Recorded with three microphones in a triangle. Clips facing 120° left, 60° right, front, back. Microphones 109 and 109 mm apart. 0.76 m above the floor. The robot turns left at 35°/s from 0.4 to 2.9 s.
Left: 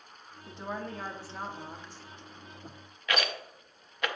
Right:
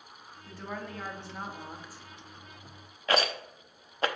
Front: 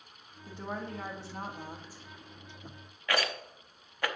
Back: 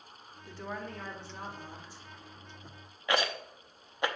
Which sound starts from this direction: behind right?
A rattle, at 3.1 s.